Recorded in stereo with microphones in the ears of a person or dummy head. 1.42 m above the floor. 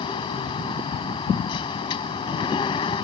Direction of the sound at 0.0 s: 30° left (ahead or behind).